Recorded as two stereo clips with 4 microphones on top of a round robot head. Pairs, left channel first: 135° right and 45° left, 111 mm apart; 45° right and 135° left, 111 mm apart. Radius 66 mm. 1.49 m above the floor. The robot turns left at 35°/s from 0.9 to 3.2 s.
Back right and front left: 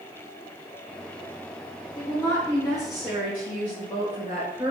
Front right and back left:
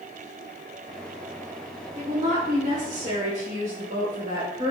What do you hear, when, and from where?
1.9 s a woman speaking: 160° left, 1.6 m; by 4.7 s 120° left, 1.6 m